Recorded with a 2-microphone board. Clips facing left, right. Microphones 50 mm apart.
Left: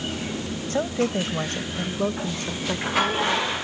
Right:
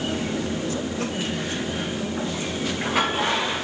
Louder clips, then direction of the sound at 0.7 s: Left 3 dB; 50° left (ahead or behind).